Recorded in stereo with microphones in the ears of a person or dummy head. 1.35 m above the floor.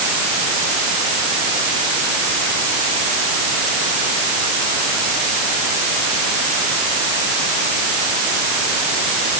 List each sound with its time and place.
Only background noise.